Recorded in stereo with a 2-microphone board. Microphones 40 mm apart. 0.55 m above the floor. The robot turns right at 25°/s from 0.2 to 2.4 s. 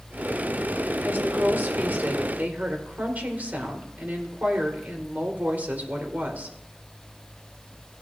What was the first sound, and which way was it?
A woman speaking, 85° right.